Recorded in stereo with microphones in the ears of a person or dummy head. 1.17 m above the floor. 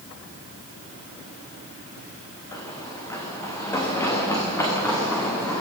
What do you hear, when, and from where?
2.5 s running footsteps: 15° left (ahead or behind), 5 m